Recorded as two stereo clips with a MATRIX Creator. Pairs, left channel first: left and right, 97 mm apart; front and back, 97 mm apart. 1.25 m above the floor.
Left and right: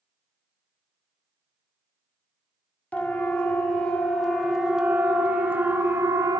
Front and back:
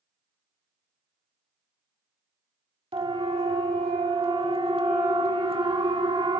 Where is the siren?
165° left, 2.5 m; by 6.4 s 145° right, 1.6 m.